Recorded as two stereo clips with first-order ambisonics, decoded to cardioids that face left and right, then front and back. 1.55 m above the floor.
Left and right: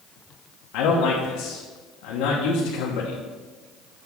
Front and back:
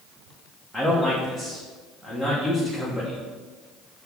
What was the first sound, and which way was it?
A man speaking, 95° left.